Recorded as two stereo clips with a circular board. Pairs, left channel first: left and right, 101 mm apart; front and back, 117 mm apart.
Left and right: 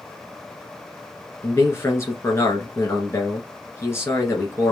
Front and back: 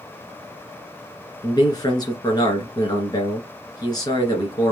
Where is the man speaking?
40° left, 2 m.